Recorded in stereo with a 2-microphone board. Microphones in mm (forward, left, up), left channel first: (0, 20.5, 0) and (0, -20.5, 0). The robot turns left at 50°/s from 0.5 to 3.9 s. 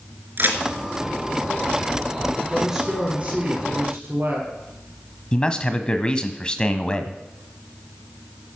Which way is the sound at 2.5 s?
5° left.